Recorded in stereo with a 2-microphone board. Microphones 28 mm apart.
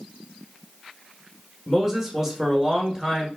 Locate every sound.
1.7 s a man speaking: 20° right (ahead or behind), 1.2 m